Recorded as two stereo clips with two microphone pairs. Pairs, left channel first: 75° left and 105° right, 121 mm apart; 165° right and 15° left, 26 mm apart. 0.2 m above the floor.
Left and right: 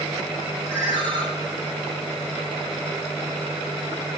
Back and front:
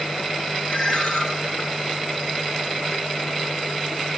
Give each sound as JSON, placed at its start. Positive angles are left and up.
{"t": 0.7, "sound": "a ringtone", "azimuth_deg": -155, "distance_m": 3.0}